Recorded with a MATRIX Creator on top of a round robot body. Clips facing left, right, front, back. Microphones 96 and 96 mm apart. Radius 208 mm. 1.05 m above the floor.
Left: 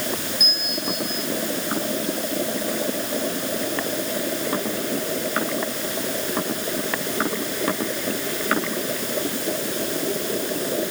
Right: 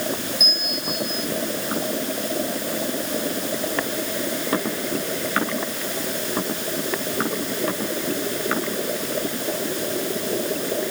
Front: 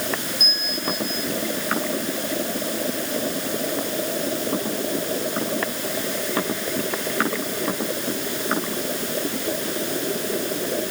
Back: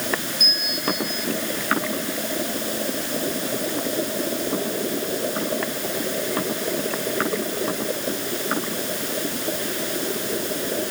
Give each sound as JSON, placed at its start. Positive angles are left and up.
{"t": 0.4, "sound": "a bell", "azimuth_deg": -55}